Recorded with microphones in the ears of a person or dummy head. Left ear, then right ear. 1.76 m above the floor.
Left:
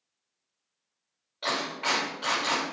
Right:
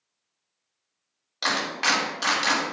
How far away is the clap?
About 2.5 m.